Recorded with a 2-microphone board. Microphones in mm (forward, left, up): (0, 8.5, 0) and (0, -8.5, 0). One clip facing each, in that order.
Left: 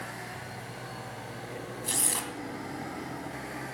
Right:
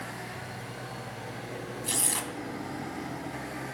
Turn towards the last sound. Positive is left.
turn(degrees=-10)  # may be behind; listen again after turning